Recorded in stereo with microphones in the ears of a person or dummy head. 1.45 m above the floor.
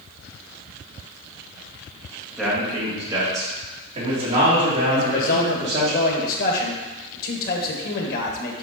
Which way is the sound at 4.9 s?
60° left (ahead or behind).